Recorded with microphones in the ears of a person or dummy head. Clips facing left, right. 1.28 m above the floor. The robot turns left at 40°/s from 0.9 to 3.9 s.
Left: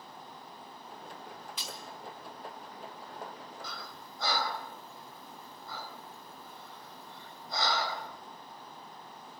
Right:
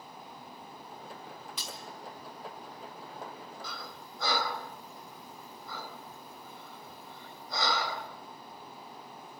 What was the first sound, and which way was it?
Breaking glass, 75° right (ahead or behind).